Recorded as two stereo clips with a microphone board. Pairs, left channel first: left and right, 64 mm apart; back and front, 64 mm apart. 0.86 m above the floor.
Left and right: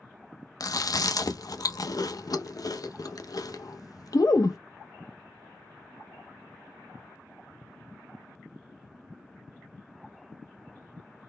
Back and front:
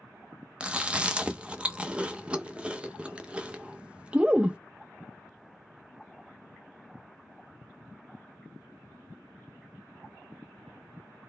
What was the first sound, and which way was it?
Chewing, 75° left.